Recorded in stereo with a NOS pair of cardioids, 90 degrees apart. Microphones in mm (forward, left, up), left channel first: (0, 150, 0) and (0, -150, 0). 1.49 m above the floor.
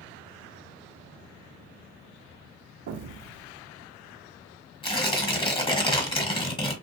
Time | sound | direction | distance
2.9 | an explosion | 60° right | 0.5 m
4.8 | tearing paper | 15° left | 1.0 m